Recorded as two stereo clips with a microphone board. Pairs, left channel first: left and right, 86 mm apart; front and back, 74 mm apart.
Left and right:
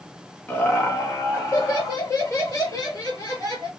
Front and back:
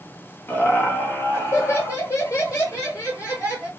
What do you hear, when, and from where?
0.5 s laughter: 40° left, 0.9 m; by 3.7 s 45° left, 2.5 m